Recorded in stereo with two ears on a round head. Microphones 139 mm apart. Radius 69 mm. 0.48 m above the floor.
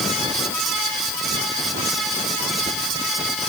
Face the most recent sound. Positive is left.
No sound to turn to.